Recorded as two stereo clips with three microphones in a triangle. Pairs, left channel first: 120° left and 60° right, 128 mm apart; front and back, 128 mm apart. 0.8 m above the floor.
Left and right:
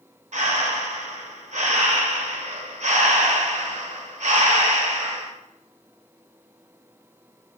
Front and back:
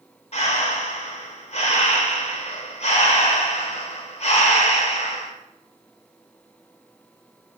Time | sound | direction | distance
0.3 | breathing | 35° right | 0.6 m